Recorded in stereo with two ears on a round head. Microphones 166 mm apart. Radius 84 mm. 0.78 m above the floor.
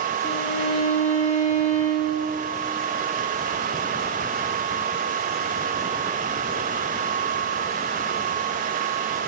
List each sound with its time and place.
0.2 s a violin: 40° left (ahead or behind), 1.2 m